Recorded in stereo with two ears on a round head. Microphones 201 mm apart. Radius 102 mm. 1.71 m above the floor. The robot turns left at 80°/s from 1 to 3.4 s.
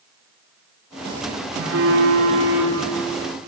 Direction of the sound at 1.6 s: 90° right.